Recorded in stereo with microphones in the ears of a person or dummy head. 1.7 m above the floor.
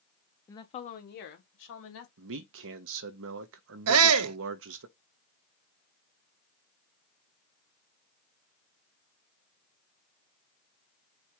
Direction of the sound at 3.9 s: 85° right.